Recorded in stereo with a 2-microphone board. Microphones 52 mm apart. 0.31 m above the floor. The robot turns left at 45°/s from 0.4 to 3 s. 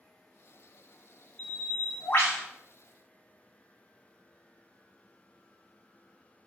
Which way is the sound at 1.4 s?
150° left.